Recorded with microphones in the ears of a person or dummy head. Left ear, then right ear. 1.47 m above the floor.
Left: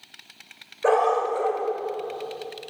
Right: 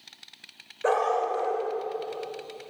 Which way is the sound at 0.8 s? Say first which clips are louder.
Left 4 dB; 5° left (ahead or behind).